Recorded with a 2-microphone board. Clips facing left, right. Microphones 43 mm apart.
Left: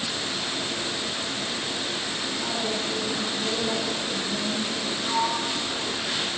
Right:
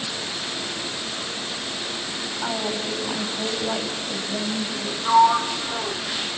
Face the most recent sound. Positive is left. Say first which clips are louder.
# right 11 dB
turn(degrees=-50)  # may be behind; listen again after turning